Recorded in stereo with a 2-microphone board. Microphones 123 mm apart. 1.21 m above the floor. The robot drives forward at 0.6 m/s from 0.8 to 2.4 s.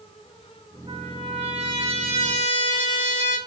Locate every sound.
0.9 s a trumpet: 50° right (ahead or behind), 5 m; by 3.4 s 60° right (ahead or behind), 4.5 m